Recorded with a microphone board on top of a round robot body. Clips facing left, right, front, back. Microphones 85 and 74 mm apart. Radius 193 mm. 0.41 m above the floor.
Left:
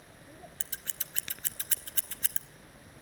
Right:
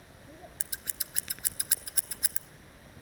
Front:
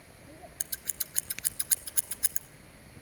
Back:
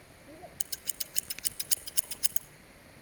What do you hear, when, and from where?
0.6 s scissors: 20° right, 1.2 m